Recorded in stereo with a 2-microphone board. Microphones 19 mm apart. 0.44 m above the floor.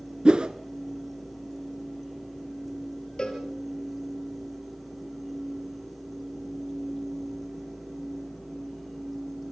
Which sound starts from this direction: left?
A cowbell, at 3.2 s.